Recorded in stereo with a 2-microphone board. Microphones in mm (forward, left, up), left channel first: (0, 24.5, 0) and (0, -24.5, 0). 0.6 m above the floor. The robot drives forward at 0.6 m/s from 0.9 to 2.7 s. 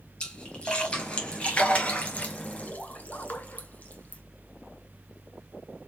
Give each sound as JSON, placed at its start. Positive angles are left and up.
{"t": 0.2, "sound": "a splash", "side_deg": 20, "distance_m": 2.5}